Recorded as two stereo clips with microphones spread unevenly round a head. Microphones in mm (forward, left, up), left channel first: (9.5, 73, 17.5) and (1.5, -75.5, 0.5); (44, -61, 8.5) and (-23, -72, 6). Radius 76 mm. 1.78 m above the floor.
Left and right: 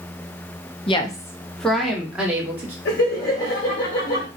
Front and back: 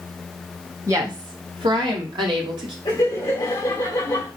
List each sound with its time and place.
0.9 s a woman speaking: 130° left, 0.7 m; by 2.8 s 170° right, 1.8 m
2.9 s laughter: 55° left, 1.8 m